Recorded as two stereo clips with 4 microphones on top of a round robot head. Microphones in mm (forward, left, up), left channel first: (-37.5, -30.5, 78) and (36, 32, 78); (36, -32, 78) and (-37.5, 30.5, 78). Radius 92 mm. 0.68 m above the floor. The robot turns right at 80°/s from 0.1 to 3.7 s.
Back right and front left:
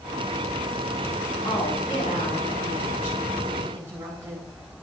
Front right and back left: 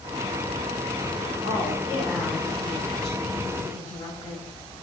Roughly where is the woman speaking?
Behind left.